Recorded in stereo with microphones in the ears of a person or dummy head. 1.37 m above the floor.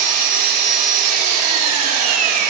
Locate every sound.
0.0 s an engine running: 50° right (ahead or behind), 2 m